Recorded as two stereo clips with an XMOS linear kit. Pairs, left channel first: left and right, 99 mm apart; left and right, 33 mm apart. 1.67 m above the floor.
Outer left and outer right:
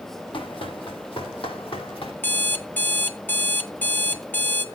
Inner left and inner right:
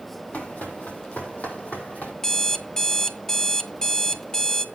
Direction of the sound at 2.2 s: 20° left (ahead or behind).